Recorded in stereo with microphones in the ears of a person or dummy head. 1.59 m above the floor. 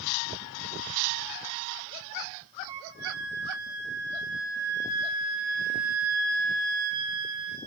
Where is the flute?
15° right (ahead or behind), 4.5 m.